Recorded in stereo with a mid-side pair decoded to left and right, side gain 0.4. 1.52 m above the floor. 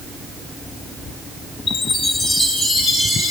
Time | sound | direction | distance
1.7 | a chime | 65° left | 4 m